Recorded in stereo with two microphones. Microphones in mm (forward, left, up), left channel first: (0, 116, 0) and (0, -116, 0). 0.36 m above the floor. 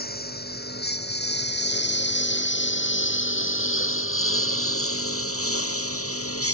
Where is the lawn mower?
45° left (ahead or behind); by 6.5 s 80° left.